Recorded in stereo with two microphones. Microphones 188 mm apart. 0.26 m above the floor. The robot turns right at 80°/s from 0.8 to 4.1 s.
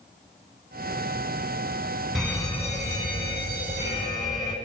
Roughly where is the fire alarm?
Ahead.